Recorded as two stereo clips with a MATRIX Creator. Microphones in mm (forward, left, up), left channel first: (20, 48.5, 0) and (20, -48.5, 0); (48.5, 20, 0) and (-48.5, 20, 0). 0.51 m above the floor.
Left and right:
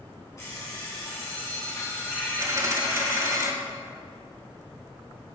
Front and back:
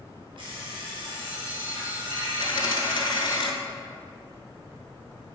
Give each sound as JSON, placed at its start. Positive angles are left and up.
{"t": 0.4, "sound": "an alarm clock", "azimuth_deg": 145, "distance_m": 2.5}
{"t": 2.4, "sound": "a dropped coin", "azimuth_deg": -35, "distance_m": 1.0}